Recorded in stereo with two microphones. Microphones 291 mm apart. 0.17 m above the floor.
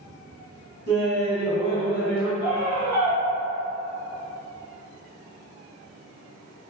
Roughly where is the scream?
Left.